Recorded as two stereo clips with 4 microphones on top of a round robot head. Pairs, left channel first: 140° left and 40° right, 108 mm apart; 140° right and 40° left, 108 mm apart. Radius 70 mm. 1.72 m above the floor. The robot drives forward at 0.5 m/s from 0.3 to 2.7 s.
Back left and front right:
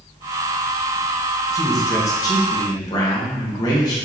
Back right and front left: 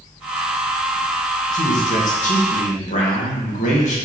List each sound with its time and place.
1.5 s a man speaking: 155° right, 1.5 m; by 4.0 s 160° right, 2 m